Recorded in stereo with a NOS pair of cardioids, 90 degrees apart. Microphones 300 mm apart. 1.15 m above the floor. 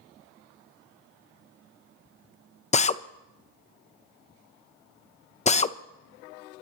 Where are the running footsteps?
No running footsteps in this recording.